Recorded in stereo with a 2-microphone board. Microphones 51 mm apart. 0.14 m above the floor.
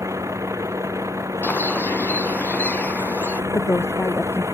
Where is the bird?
35° left (ahead or behind).